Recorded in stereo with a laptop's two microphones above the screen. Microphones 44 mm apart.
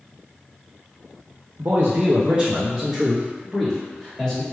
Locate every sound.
1.6 s a man speaking: 60° right (ahead or behind), 0.6 m; by 4.4 s 20° left (ahead or behind), 1.7 m